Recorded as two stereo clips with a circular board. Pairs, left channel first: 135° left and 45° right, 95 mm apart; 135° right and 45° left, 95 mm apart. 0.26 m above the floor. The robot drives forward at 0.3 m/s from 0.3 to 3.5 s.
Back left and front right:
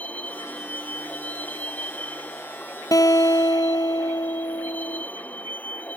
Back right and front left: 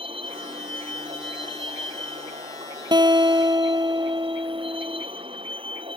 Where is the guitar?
85° left; by 5.0 s 90° left.